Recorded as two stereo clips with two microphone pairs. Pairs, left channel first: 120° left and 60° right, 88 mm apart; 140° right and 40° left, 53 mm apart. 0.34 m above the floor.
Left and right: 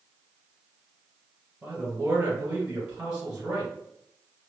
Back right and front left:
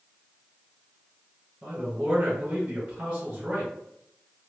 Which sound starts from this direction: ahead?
A man speaking, at 1.6 s.